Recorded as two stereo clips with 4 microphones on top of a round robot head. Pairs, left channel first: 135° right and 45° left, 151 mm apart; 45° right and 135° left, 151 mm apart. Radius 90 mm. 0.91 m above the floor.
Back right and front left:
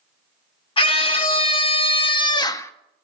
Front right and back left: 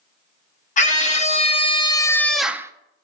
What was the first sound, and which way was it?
A scream, 80° right.